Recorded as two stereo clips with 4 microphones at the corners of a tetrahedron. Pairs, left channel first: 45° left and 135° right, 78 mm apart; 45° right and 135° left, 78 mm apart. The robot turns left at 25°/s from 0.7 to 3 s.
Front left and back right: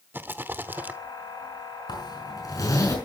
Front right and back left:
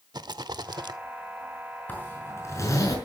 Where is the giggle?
No giggle in this recording.